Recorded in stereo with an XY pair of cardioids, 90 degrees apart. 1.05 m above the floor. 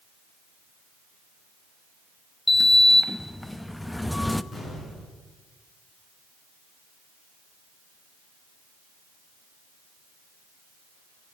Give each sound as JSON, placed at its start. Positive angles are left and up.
{"t": 2.5, "sound": "a sliding door", "azimuth_deg": 10, "distance_m": 0.6}
{"t": 4.5, "sound": "an explosion", "azimuth_deg": 45, "distance_m": 7.0}